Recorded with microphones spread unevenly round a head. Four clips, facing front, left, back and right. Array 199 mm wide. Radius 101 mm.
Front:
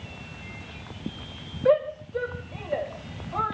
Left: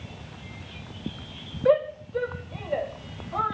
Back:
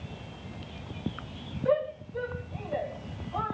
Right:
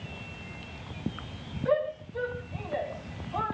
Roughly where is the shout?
Ahead left.